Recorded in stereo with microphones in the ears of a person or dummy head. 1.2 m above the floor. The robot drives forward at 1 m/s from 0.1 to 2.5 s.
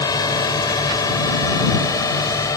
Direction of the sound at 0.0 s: 25° left (ahead or behind).